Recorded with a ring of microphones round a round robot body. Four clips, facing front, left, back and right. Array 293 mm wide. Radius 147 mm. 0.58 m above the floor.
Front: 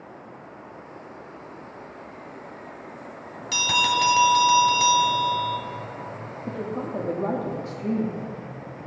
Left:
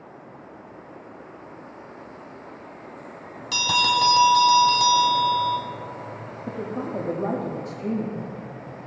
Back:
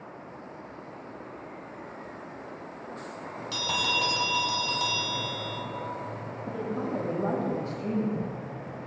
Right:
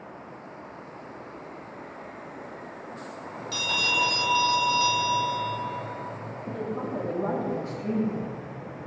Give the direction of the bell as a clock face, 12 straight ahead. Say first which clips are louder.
Left 8 dB, front 8 dB; 10 o'clock.